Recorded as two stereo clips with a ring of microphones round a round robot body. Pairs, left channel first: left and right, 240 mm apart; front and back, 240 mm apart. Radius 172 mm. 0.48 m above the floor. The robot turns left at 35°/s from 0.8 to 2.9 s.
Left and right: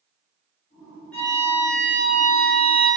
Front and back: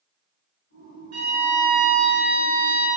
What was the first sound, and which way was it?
A violin, 175° left.